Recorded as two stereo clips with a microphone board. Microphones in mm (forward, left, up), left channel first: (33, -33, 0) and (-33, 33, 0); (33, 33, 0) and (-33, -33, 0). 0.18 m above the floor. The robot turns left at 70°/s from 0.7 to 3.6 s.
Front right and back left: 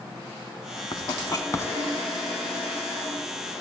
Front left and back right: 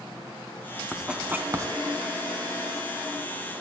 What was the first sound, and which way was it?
Writing, 45° right.